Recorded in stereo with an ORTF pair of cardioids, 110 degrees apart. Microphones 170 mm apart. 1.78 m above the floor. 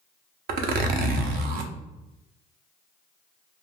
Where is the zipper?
65° right, 0.5 m.